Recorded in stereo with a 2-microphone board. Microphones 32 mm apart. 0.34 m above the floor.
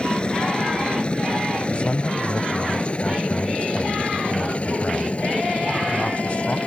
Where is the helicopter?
30° left (ahead or behind); by 6.7 s 45° left (ahead or behind).